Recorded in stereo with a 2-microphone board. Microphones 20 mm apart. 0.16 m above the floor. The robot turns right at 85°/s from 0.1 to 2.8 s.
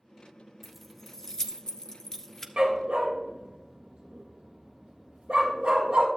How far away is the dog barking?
About 1.7 m.